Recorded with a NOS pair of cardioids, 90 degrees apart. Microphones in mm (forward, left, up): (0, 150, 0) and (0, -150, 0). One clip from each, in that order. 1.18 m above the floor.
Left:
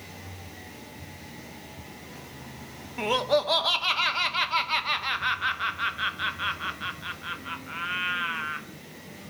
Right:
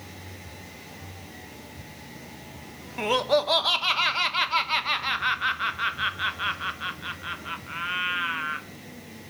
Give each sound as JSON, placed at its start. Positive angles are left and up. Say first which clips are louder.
{"t": 3.0, "sound": "laughter", "louder": "right 1 dB", "azimuth_deg": -5, "distance_m": 0.6}